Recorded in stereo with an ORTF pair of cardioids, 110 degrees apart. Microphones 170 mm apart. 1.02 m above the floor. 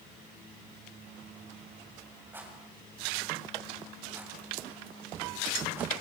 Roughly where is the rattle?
Ahead.